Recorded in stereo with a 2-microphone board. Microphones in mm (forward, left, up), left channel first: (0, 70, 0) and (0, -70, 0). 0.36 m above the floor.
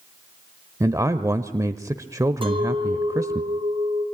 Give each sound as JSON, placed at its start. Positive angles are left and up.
{"t": 0.8, "sound": "a man speaking", "side_deg": -25, "distance_m": 1.0}
{"t": 2.4, "sound": "a clink", "side_deg": -40, "distance_m": 3.5}